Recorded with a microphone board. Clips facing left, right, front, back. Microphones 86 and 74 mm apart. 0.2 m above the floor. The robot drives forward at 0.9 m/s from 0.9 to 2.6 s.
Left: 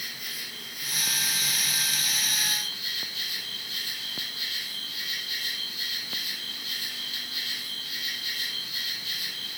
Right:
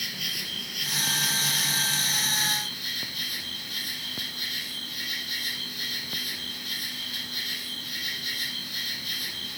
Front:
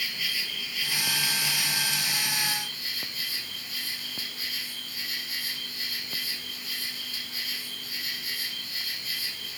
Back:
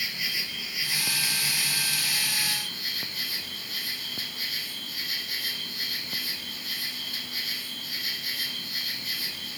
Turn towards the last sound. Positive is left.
turn(degrees=-140)